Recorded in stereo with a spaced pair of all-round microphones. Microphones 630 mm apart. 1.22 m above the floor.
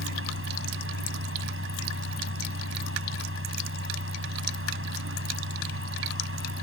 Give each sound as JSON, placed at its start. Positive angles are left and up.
{"t": 0.0, "sound": "a fan", "side_deg": -20}